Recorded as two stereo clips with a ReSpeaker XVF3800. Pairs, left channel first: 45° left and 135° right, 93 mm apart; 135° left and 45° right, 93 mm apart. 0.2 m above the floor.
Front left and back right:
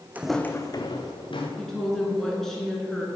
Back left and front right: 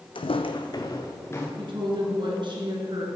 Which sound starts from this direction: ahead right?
A woman speaking, at 1.6 s.